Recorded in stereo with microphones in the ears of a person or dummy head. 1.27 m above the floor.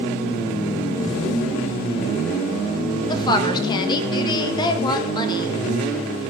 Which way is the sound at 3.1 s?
25° left (ahead or behind).